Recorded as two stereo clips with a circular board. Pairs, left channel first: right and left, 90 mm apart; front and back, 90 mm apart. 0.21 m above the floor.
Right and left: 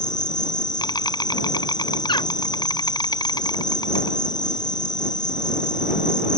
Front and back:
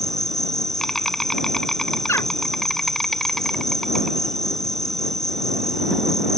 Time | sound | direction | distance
0.0 | an insect | 85° right | ?
2.1 | a bird | 60° right | ?